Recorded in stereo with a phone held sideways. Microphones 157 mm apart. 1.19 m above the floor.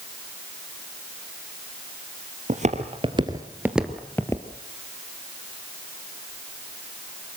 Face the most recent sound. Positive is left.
turn(degrees=20)  # may be behind; listen again after turning